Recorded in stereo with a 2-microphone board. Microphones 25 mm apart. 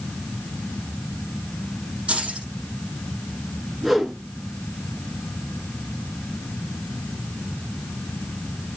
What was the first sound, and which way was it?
Keys jangling, 50° right (ahead or behind).